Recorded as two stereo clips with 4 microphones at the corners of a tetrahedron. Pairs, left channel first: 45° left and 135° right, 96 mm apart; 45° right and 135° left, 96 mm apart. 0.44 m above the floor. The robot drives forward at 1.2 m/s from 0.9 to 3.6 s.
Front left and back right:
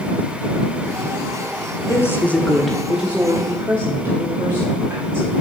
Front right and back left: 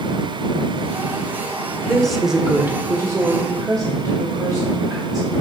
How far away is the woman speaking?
About 1.4 m.